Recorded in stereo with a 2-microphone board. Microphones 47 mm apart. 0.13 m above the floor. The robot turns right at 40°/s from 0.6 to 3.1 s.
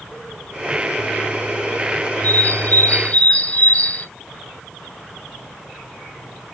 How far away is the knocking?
No knocking in this recording.